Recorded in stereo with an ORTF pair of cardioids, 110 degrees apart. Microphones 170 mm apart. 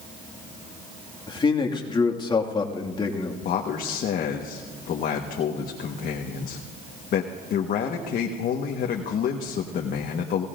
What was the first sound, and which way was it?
A man speaking, 25° left.